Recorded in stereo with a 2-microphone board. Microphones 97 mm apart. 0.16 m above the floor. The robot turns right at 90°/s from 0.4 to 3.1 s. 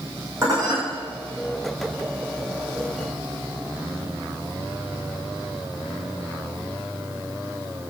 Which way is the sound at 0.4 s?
150° right.